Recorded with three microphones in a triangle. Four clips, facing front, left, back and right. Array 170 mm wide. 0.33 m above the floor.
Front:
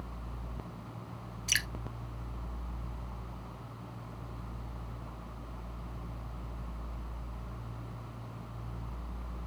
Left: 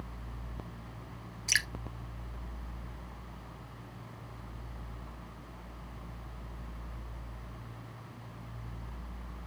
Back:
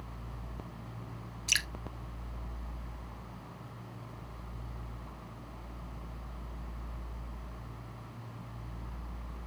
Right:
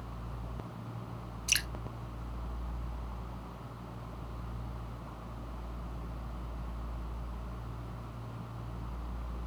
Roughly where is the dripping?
Behind left.